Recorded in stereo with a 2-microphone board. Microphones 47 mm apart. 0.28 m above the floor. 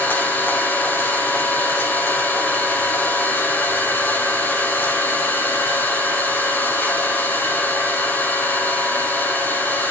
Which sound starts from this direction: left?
An engine running, at 0.0 s.